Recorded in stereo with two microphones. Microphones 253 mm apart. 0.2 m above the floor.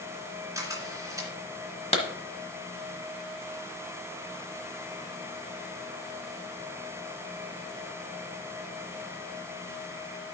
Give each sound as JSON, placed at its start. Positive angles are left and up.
{"t": 0.6, "sound": "a camera shutter", "side_deg": -15, "distance_m": 2.5}
{"t": 1.9, "sound": "a clap", "side_deg": 25, "distance_m": 1.3}